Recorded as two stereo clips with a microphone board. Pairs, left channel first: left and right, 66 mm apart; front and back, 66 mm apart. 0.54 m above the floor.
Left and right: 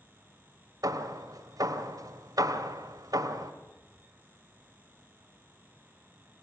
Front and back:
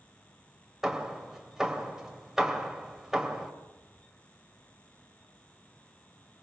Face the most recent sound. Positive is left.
turn(degrees=-95)